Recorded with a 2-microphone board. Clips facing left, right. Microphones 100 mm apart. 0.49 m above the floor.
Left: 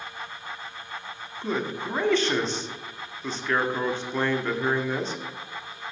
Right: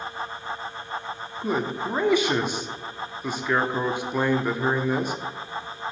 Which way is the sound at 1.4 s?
10° right (ahead or behind).